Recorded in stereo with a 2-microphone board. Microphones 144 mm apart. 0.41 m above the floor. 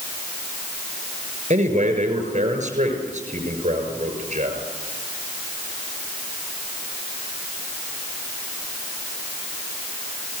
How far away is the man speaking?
About 6.5 m.